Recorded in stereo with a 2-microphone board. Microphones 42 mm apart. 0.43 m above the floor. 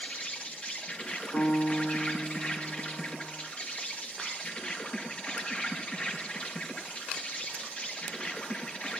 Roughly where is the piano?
Left.